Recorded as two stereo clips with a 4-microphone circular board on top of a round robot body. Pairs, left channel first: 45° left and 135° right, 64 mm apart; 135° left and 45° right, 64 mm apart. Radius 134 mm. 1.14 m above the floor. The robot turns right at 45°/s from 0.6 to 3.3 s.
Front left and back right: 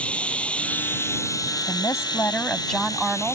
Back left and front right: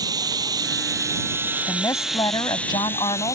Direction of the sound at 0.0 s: 30° right.